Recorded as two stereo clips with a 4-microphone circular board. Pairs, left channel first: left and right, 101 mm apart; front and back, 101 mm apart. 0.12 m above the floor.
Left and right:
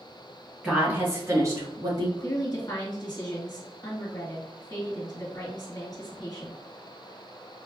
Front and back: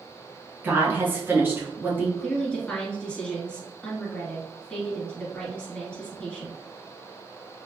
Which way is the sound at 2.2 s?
75° left.